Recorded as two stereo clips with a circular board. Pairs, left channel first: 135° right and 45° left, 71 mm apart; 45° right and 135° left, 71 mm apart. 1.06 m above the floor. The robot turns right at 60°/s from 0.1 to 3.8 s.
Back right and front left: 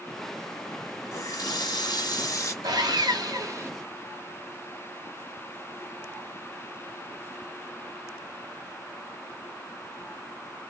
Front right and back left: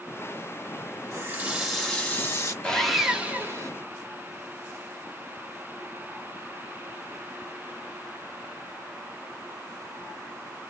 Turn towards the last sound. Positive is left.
turn(degrees=100)